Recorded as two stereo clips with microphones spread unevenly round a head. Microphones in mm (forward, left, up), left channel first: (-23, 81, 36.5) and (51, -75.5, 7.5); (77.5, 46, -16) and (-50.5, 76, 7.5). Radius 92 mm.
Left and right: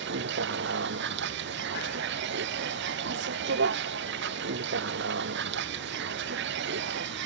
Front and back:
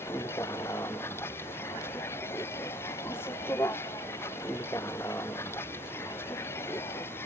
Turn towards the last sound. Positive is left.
turn(degrees=-90)